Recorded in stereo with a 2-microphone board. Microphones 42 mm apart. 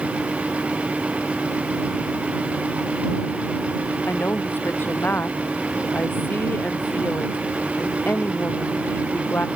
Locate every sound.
4.1 s a woman speaking: 55° left (ahead or behind)